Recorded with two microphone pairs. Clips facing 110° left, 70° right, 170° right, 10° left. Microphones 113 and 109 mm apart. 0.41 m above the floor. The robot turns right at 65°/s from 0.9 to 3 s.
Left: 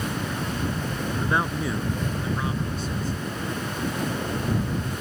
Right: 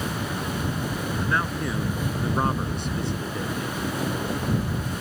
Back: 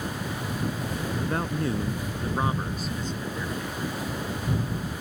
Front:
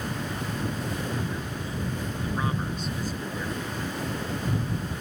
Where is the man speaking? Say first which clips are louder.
Left 2 dB, back 6 dB; 170° left; by 3.7 s 75° right.